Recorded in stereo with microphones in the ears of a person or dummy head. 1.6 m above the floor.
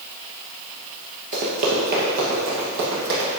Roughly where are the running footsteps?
Right.